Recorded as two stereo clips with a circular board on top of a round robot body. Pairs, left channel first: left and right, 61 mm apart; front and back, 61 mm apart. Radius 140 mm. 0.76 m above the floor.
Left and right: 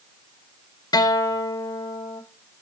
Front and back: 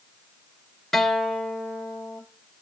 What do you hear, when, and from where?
0.9 s a guitar: 85° left, 0.6 m